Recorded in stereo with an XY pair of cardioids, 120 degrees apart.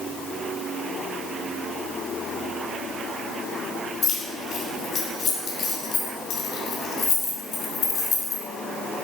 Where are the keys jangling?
70° left, 2 m.